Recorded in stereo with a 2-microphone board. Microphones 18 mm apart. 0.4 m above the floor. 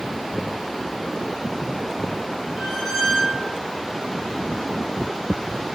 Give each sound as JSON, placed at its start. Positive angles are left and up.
{"t": 2.6, "sound": "a squeak", "side_deg": -30, "distance_m": 1.2}